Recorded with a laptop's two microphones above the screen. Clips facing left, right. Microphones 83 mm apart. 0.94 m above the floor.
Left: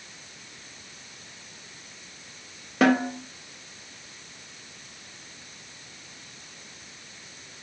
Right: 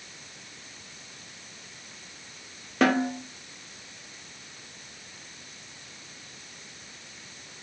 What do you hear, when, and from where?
2.8 s a snare drum: centre (ahead or behind), 0.6 m